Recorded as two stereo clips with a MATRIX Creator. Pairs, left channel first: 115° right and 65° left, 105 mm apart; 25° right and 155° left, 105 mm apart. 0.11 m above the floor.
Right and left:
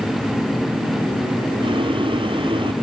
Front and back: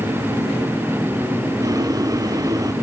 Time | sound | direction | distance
1.6 | boiling | 105° left | ?